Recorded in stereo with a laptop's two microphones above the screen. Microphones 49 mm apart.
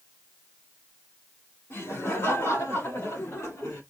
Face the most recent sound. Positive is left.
turn(degrees=85)